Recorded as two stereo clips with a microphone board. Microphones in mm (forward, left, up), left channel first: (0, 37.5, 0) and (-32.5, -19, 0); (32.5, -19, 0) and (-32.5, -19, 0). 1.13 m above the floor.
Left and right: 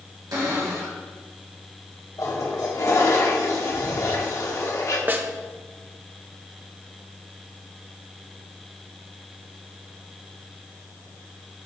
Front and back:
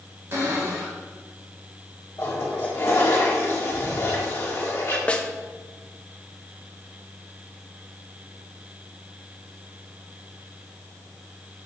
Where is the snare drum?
70° right, 0.6 m.